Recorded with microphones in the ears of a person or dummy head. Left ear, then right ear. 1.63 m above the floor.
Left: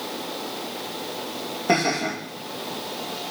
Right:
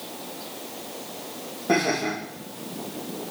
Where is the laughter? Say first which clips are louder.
Left 1 dB; 75° left (ahead or behind), 3.5 m.